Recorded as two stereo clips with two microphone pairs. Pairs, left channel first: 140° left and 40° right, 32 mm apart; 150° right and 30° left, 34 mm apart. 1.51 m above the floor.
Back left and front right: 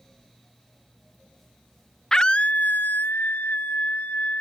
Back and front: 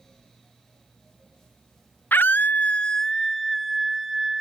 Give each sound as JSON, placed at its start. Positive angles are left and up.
{"t": 2.1, "sound": "a scream", "azimuth_deg": -150}